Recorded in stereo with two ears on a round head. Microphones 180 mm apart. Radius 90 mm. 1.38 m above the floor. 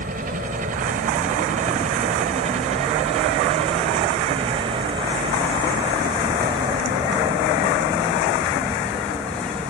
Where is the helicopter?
45° right (ahead or behind); by 9.7 s 10° right (ahead or behind).